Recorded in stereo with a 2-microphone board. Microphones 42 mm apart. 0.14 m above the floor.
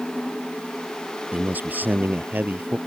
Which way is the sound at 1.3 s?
45° right (ahead or behind).